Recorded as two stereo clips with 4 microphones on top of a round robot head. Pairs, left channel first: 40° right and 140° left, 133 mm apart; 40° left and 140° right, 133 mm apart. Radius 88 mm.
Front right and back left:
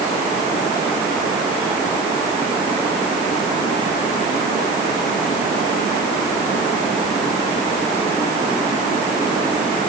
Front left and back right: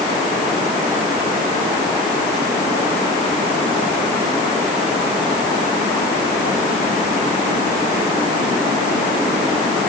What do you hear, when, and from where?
Only background noise.